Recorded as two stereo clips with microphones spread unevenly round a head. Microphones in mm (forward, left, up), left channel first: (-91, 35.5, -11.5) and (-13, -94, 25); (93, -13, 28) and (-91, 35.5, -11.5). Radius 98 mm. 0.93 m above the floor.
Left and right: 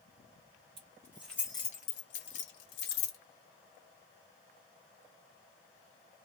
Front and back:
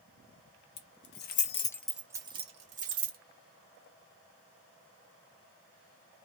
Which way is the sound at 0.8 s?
5° left.